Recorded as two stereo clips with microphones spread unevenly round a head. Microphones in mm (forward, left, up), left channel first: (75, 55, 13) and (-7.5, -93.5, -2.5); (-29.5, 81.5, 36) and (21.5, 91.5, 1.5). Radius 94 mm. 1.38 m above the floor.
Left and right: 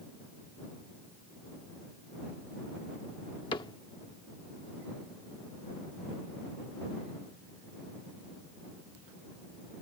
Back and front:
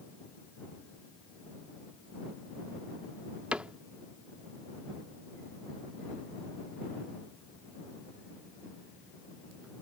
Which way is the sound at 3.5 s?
115° left.